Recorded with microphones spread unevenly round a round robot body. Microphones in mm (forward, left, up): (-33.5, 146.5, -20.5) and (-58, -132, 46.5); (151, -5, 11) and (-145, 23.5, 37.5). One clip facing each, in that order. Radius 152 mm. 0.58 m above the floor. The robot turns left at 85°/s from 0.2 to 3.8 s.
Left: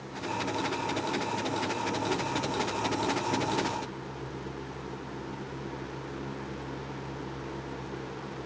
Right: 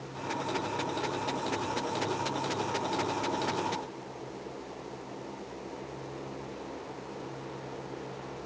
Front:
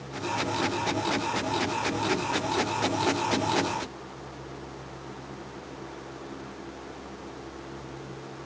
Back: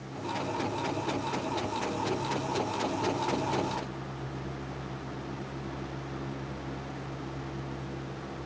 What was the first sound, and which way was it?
Only background noise.